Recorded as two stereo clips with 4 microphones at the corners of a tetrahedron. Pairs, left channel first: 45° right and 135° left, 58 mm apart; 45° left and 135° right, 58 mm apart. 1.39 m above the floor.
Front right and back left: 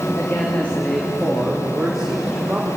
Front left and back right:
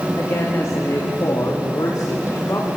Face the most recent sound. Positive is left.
turn(degrees=60)